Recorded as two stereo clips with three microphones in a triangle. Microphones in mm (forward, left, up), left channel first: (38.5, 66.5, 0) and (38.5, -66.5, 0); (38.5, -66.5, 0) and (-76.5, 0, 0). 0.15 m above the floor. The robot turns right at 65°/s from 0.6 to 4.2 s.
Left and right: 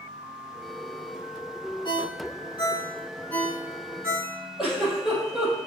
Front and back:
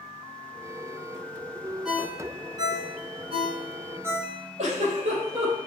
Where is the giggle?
175° right, 4.5 m.